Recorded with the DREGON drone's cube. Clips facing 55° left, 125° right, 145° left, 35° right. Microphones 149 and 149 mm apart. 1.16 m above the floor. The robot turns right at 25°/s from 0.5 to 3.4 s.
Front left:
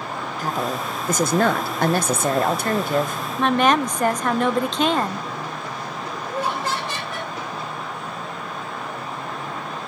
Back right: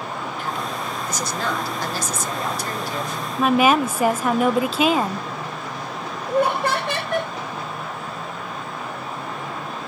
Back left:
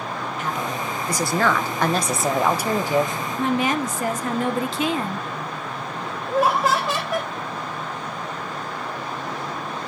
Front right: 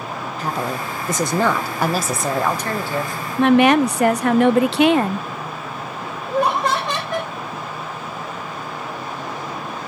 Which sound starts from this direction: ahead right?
A woman speaking, at 3.4 s.